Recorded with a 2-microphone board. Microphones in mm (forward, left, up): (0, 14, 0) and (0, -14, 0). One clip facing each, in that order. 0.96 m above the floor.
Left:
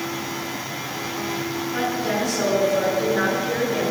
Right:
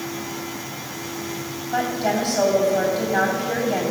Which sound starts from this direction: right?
A woman speaking, at 1.7 s.